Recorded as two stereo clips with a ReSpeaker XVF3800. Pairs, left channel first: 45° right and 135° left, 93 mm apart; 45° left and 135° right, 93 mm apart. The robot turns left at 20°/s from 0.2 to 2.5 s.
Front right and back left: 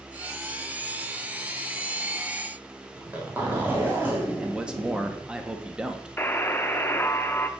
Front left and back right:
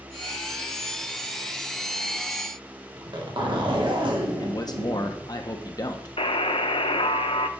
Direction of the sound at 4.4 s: 60° left.